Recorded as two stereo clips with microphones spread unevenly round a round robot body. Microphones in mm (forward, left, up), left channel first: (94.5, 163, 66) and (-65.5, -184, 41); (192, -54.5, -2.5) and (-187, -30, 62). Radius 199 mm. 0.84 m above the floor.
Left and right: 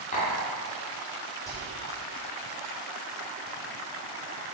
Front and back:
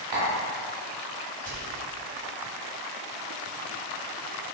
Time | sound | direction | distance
0.1 | tapping | 135° left | 2.5 m
1.5 | whispering | 150° left | 2.5 m